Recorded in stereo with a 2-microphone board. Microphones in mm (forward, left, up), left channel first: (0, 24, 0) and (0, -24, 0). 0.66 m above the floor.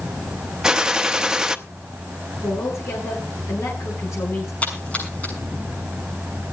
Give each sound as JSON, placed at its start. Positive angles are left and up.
{"t": 0.6, "sound": "a gunshot", "side_deg": -15, "distance_m": 0.9}
{"t": 2.4, "sound": "a woman speaking", "side_deg": 80, "distance_m": 9.5}
{"t": 4.6, "sound": "a splash", "side_deg": 30, "distance_m": 6.5}